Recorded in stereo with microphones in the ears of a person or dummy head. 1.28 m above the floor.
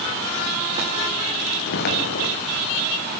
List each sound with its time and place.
1.7 s footsteps: 65° left (ahead or behind), 5 m